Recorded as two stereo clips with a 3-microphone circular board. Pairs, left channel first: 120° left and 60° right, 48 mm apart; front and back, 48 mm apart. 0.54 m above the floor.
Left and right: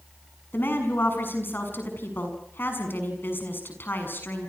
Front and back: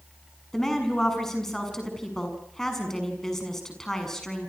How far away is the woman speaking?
About 6.5 m.